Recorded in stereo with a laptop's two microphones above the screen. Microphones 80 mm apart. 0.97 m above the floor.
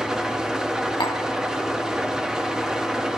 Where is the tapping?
80° left, 1.3 m.